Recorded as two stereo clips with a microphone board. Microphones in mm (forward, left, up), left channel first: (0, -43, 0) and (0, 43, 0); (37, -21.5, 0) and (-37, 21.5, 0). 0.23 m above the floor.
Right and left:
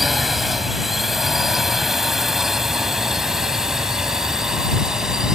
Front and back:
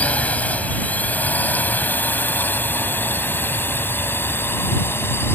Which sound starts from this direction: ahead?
A drone, at 0.0 s.